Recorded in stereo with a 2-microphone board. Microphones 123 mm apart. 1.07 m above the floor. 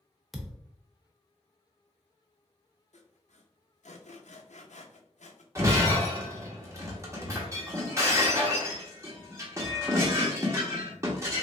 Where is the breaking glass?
25° right (ahead or behind), 1.0 m.